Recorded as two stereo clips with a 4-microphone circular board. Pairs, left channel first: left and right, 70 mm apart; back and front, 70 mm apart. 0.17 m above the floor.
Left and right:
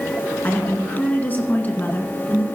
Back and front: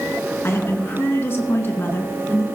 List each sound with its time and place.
0.4 s a woman speaking: 145° left, 2 m